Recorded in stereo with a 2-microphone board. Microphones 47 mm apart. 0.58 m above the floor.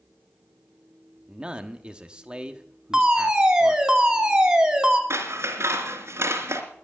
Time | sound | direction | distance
1.3 | a man speaking | 20° right (ahead or behind) | 1.1 m
2.9 | a fire alarm | 15° right (ahead or behind) | 2.5 m
5.1 | scissors | 70° right (ahead or behind) | 2.5 m